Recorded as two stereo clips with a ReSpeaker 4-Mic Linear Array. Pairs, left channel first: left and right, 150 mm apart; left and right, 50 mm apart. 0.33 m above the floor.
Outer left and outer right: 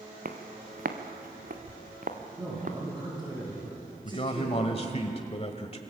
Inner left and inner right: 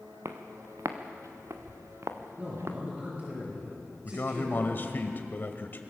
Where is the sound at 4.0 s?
40° left (ahead or behind), 1.4 m.